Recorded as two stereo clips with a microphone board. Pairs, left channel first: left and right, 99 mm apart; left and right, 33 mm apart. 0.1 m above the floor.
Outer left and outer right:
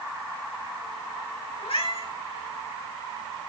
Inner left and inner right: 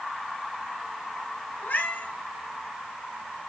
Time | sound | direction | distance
1.6 | a cat meowing | 85° left | 7.5 m